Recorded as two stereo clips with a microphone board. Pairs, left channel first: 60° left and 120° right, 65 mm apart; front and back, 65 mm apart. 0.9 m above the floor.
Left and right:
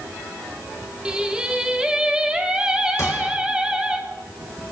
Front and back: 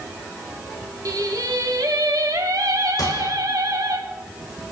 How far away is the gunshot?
About 4.5 m.